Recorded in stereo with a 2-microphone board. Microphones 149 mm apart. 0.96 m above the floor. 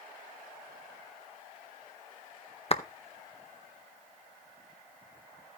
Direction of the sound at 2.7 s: 45° left (ahead or behind).